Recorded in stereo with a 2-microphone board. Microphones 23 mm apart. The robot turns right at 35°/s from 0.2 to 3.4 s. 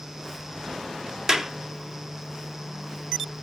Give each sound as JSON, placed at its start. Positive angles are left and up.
{"t": 1.3, "sound": "a clap", "side_deg": -30, "distance_m": 1.0}